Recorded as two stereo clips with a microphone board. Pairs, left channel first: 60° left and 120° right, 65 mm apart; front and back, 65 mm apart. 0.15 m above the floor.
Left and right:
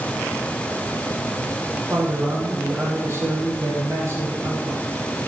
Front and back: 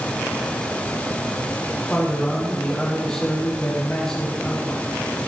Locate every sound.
1.9 s a man speaking: 80° right, 6 m